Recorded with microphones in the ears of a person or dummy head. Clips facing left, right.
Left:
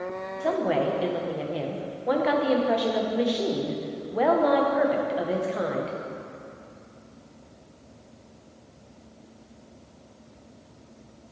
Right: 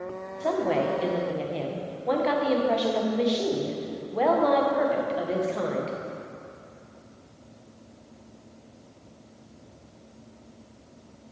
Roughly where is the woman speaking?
Centre.